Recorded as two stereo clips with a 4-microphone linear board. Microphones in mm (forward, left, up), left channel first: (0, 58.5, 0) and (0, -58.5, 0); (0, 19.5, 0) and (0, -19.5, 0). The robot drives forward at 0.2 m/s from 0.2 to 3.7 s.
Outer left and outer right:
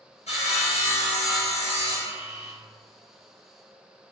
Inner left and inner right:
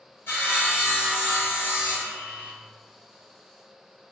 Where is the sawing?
75° left (ahead or behind), 1.6 m; by 2.5 s 70° left (ahead or behind), 1.7 m.